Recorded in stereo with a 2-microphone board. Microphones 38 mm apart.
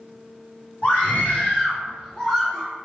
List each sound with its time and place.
0.8 s a scream: 45° left (ahead or behind), 1.7 m; by 2.7 s 15° left (ahead or behind), 1.5 m